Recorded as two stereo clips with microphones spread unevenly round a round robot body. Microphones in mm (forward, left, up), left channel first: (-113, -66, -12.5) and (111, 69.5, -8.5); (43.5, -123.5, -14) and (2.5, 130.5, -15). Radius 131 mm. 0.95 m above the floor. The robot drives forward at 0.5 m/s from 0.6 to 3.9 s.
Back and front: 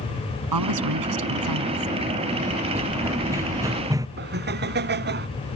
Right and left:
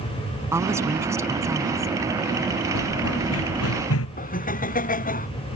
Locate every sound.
0.5 s a woman speaking: 20° left
2.8 s running footsteps: 50° right; by 4.1 s 45° right
4.2 s laughter: 20° right